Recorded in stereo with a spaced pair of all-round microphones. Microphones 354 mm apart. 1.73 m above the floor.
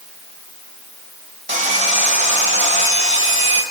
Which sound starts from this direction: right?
Sawing, at 1.5 s.